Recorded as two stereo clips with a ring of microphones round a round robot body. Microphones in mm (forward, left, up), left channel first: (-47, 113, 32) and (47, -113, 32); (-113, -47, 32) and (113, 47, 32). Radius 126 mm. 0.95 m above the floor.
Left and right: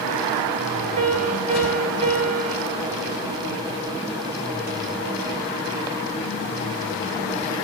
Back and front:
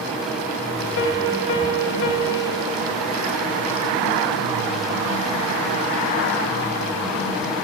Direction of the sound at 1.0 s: 125° right.